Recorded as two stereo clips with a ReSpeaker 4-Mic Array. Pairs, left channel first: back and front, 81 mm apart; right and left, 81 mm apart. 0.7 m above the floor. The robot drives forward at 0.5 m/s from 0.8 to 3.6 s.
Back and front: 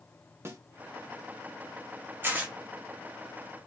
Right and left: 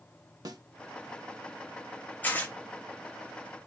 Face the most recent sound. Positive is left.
turn(degrees=-145)